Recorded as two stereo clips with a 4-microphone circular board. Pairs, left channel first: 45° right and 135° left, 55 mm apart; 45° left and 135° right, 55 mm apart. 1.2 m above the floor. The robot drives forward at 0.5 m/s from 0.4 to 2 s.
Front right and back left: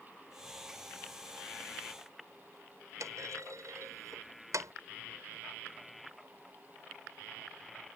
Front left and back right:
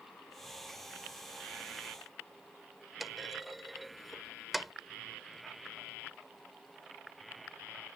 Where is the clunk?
135° left.